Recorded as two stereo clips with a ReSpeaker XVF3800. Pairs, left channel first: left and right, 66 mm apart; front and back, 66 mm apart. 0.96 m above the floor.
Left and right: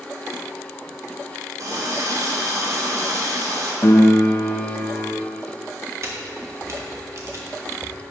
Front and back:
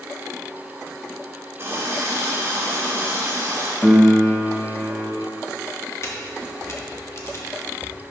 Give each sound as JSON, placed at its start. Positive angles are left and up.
{"t": 1.6, "sound": "a running tap", "azimuth_deg": -125, "distance_m": 1.6}
{"t": 3.8, "sound": "a piano", "azimuth_deg": 80, "distance_m": 0.8}
{"t": 6.0, "sound": "a camera shutter", "azimuth_deg": -45, "distance_m": 1.2}